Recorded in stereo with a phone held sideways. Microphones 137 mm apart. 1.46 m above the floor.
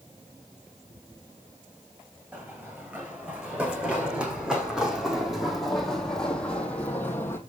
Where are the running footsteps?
15° right (ahead or behind), 4.5 m; by 7.4 s 15° left (ahead or behind), 2.5 m.